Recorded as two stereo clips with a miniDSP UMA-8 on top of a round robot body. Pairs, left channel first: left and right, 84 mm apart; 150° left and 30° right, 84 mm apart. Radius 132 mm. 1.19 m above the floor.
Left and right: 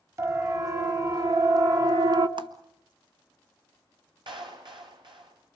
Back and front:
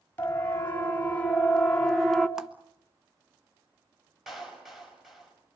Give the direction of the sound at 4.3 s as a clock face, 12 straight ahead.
4 o'clock.